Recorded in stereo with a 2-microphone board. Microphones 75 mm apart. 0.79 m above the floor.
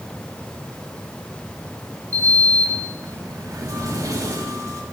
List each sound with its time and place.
2.1 s a sliding door: 45° right (ahead or behind), 1.4 m